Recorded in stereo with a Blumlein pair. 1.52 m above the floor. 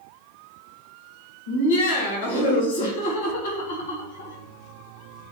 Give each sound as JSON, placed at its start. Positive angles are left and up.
{"t": 1.5, "sound": "laughter", "azimuth_deg": 60, "distance_m": 1.3}